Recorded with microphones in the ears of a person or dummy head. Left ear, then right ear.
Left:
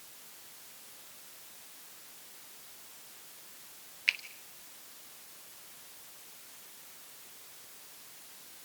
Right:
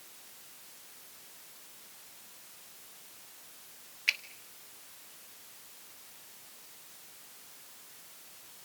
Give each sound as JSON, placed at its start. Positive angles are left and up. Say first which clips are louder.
{"t": 4.1, "sound": "a finger snap", "louder": "even", "side_deg": -5, "distance_m": 1.0}